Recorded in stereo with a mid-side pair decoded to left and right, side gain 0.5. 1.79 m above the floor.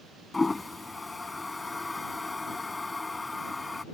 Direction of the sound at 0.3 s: 15° left.